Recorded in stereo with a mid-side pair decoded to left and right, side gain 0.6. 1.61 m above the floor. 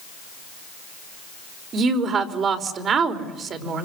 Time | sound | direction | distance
1.7 | a woman speaking | 40° right | 5 m